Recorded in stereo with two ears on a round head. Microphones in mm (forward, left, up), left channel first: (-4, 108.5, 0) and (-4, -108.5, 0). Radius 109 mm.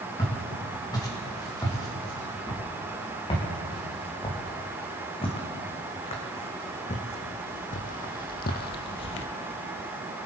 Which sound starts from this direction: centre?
Footsteps, at 0.2 s.